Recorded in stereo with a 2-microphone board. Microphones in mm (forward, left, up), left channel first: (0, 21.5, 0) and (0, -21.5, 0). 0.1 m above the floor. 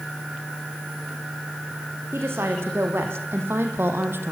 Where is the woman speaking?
80° right, 6 m; by 4.3 s 70° right (ahead or behind), 3 m.